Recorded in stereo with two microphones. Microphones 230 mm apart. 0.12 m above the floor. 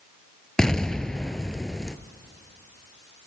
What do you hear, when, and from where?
0.6 s an explosion: 5° left (ahead or behind), 0.5 m